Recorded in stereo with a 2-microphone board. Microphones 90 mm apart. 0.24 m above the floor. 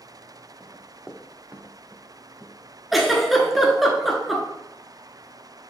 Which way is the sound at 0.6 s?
5° right (ahead or behind).